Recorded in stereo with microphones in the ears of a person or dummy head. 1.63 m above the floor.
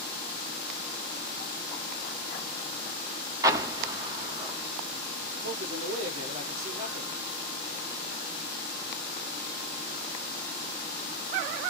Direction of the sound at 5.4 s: 40° right (ahead or behind).